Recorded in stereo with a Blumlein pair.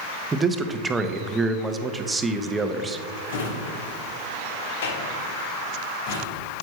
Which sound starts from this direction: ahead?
A man speaking, at 0.3 s.